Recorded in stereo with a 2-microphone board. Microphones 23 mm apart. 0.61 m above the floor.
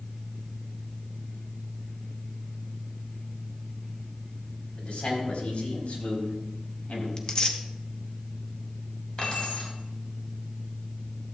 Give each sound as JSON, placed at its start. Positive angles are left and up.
{"t": 4.8, "sound": "a man speaking", "side_deg": 50, "distance_m": 3.5}
{"t": 7.2, "sound": "tearing paper", "side_deg": 35, "distance_m": 0.9}
{"t": 9.2, "sound": "keys jangling", "side_deg": 40, "distance_m": 3.0}